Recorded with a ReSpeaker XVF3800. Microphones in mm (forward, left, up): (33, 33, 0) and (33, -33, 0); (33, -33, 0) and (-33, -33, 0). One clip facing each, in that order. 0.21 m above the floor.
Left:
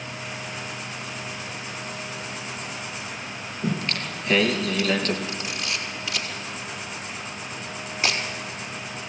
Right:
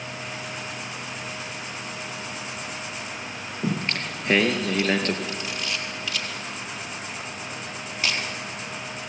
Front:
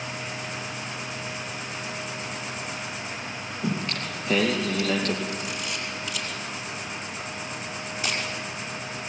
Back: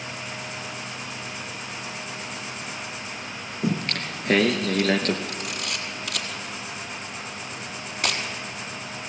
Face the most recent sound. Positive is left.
turn(degrees=160)